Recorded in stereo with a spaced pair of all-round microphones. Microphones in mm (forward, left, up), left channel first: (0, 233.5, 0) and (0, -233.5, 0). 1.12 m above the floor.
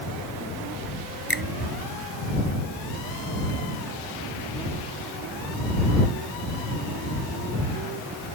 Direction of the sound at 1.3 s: 50° left (ahead or behind).